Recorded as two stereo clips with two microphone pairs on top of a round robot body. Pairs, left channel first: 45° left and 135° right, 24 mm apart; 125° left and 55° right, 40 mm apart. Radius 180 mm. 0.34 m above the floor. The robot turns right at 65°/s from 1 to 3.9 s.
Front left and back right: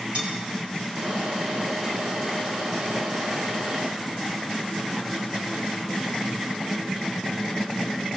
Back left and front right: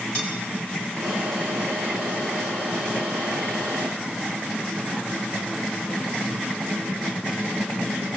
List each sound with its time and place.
0.1 s cutlery clinking: 170° right, 5.5 m